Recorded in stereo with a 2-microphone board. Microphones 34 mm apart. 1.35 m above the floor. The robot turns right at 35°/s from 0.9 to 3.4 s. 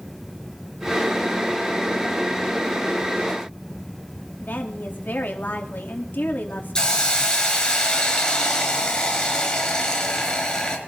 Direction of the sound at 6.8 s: 20° left (ahead or behind).